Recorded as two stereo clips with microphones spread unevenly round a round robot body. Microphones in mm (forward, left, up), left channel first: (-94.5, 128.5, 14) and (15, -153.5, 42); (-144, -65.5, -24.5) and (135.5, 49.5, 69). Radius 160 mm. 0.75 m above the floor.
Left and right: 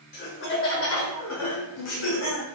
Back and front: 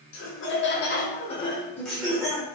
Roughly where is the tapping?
No tapping in this recording.